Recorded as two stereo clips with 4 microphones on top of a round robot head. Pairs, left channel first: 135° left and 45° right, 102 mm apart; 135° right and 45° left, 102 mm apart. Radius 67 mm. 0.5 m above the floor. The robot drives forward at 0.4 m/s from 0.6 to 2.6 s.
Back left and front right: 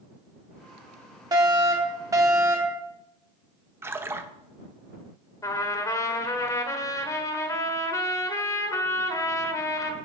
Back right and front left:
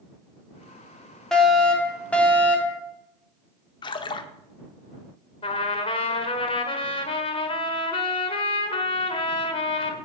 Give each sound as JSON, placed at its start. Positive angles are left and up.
{"t": 1.3, "sound": "a fire alarm", "azimuth_deg": -55, "distance_m": 2.5}
{"t": 3.8, "sound": "a splash", "azimuth_deg": -110, "distance_m": 0.8}
{"t": 5.4, "sound": "a trumpet", "azimuth_deg": -165, "distance_m": 1.4}